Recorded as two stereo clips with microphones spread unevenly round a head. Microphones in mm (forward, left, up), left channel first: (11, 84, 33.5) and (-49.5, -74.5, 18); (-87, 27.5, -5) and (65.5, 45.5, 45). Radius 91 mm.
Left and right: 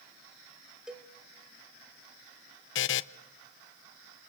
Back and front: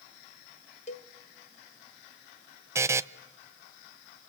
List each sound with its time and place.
0.9 s a cowbell: 155° left, 0.9 m
2.8 s a buzzer: 80° left, 0.6 m